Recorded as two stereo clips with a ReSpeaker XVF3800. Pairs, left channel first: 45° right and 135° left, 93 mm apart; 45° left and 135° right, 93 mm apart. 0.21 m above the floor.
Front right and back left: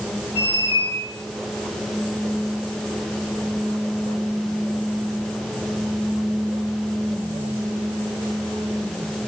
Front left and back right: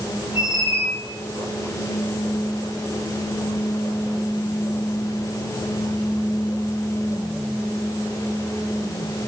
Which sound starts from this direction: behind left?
A squeak, at 0.3 s.